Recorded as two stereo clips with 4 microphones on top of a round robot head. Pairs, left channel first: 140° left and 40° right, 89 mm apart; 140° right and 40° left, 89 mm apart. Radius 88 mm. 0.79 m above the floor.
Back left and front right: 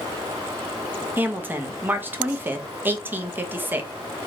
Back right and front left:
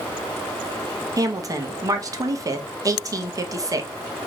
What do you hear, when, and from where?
1.2 s a woman speaking: 15° left, 1.1 m